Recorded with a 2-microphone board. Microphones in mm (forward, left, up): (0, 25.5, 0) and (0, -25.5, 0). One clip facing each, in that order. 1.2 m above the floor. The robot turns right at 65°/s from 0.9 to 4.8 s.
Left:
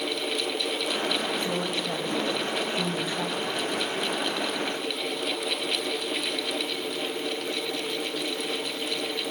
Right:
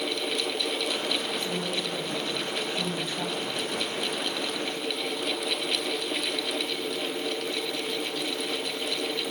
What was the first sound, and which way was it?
A woman speaking, 50° left.